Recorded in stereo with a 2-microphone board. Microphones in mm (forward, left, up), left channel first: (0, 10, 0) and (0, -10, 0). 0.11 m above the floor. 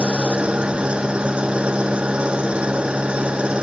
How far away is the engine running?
About 1.6 m.